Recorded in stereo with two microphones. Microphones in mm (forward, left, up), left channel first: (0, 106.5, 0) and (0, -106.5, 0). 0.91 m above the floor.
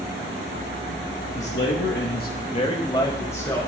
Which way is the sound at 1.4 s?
45° left (ahead or behind).